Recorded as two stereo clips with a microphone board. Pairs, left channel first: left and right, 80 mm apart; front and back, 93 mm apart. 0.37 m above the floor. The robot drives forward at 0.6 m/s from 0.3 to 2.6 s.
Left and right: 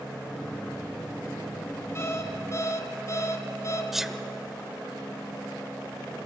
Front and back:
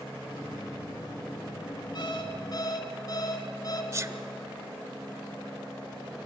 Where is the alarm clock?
35° left, 2 m; by 3.8 s 40° left, 1.8 m.